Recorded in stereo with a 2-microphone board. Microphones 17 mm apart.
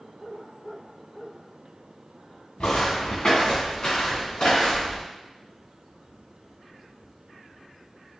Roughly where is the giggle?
I don't hear a giggle.